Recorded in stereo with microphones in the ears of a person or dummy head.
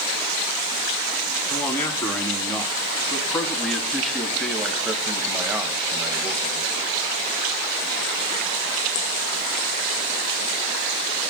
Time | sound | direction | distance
1.5 | a man speaking | 15° left (ahead or behind) | 4 m